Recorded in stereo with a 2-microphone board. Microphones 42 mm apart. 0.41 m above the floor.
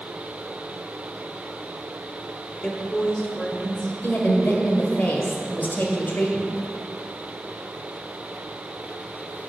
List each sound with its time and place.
2.6 s a woman speaking: 25° left (ahead or behind), 1.2 m; by 3.9 s 10° left (ahead or behind), 2.0 m
4.0 s a woman speaking: 50° left (ahead or behind), 1.7 m